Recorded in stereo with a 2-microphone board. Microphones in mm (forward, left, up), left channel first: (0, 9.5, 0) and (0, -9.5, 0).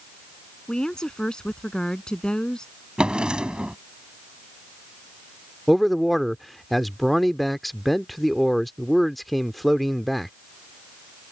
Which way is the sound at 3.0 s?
80° right.